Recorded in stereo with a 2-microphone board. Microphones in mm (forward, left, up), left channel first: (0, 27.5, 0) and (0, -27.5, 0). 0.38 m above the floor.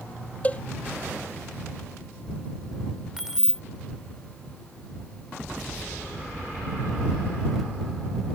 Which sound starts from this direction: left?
A cowbell, at 0.4 s.